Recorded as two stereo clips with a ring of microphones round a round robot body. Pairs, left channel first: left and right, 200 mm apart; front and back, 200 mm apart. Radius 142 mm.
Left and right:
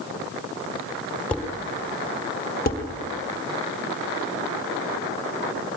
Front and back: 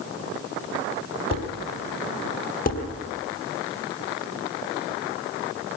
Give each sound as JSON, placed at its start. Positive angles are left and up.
{"t": 1.3, "sound": "dishes clattering", "azimuth_deg": 5, "distance_m": 3.5}
{"t": 2.7, "sound": "dishes clattering", "azimuth_deg": 45, "distance_m": 3.5}